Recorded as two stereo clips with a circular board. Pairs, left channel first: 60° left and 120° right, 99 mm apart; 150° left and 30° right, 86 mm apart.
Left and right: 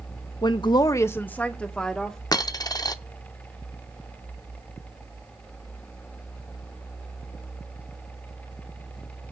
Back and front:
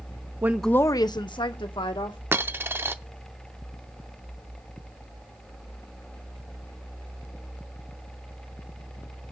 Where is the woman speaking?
30° left, 0.6 m; by 2.2 s 145° left, 2 m.